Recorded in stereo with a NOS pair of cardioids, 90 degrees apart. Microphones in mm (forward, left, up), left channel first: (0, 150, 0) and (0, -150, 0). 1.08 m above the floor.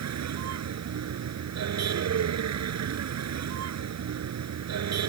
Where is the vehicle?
60° right.